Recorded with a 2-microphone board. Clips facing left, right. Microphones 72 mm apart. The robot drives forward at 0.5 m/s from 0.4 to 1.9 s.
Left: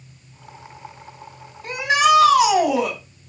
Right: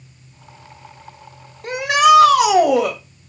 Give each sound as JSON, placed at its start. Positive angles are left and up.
{"t": 1.6, "sound": "a shout", "side_deg": -60, "distance_m": 1.9}